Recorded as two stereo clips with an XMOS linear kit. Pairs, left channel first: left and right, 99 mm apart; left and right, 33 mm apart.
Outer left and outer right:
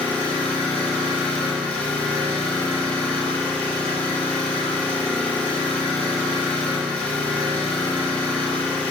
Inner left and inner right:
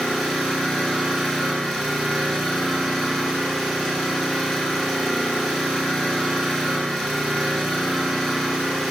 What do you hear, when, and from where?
0.0 s an engine running: 10° left (ahead or behind), 1.9 m